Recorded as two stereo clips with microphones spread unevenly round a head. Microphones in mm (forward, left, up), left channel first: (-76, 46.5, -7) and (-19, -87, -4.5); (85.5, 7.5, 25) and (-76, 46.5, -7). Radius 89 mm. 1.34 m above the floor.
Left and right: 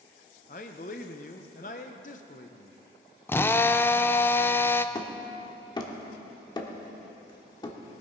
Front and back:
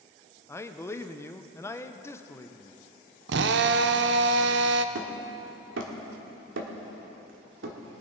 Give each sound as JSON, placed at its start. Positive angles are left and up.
{"t": 0.5, "sound": "a man speaking", "azimuth_deg": 60, "distance_m": 0.7}
{"t": 3.3, "sound": "a drill", "azimuth_deg": -170, "distance_m": 0.5}
{"t": 5.0, "sound": "hammering", "azimuth_deg": 170, "distance_m": 1.5}